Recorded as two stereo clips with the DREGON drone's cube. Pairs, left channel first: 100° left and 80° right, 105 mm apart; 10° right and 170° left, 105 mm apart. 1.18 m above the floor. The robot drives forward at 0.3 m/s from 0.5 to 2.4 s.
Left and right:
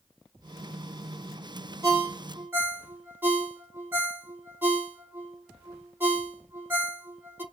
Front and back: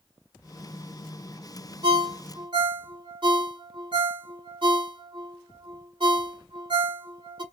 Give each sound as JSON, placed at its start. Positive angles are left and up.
{"t": 1.8, "sound": "a ringtone", "azimuth_deg": -140, "distance_m": 0.8}